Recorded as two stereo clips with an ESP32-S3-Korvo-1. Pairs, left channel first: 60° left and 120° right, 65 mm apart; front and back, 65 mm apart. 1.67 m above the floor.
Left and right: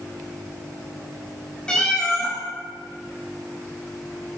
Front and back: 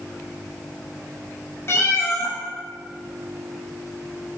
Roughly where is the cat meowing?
Ahead.